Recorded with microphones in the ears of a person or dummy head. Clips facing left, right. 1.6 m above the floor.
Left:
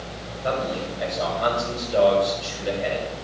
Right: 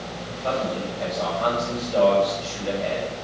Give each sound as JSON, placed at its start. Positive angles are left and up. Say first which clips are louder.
{"t": 0.4, "sound": "a man speaking", "louder": "even", "side_deg": 10, "distance_m": 8.0}